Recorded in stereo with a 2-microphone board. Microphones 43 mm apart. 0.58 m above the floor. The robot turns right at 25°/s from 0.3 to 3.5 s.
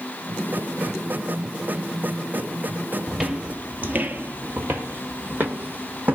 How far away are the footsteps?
About 1.1 m.